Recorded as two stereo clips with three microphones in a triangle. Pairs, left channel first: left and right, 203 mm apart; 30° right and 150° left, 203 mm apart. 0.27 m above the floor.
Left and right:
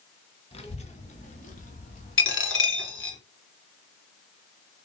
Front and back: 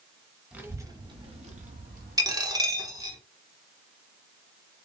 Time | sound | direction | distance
0.5 | a child speaking | 75° left | 0.9 m
2.2 | a dropped coin | 80° left | 0.9 m